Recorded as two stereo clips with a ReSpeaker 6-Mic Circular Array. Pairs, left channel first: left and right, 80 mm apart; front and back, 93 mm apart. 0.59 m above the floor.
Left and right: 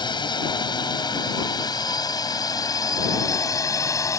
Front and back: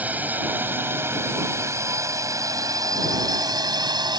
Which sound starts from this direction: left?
A drone, at 0.0 s.